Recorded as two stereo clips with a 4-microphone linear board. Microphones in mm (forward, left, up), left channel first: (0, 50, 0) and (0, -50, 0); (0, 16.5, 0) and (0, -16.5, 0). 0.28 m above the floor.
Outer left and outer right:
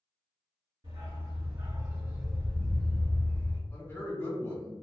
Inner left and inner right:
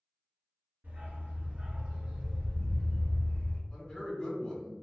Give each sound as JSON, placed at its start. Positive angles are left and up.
{"t": 0.8, "sound": "a dog barking", "side_deg": -55, "distance_m": 1.6}
{"t": 3.7, "sound": "a man speaking", "side_deg": 25, "distance_m": 1.3}